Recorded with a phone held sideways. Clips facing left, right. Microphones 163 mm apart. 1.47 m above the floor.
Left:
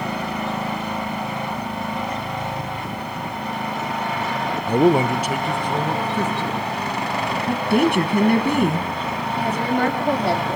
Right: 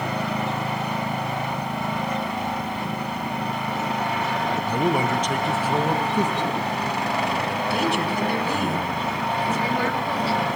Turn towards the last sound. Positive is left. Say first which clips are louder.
# left 5 dB
turn(degrees=60)  # may be behind; listen again after turning